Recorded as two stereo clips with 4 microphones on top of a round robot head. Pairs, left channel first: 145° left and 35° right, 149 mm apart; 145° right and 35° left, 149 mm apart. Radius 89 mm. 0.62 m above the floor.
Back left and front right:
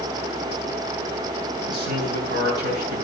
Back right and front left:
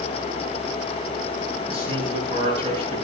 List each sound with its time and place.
1.7 s a man speaking: 20° right, 9 m